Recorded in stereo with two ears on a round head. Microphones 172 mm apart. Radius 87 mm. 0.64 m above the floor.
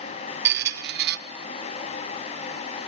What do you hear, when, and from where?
0.5 s a squeak: 60° right (ahead or behind), 0.6 m